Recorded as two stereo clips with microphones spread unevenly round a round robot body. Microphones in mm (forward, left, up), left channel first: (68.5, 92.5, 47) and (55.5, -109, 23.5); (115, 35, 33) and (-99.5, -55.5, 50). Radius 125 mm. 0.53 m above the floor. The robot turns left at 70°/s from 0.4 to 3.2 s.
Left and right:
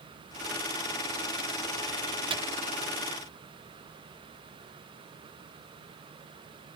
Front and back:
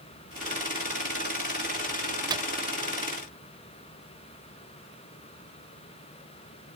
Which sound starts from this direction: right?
A microwave, at 2.3 s.